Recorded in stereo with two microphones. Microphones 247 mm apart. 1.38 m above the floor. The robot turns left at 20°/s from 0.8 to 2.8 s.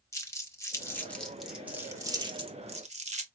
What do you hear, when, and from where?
0.1 s crumpling: 10° left (ahead or behind), 1.0 m; by 3.3 s 30° right (ahead or behind), 1.0 m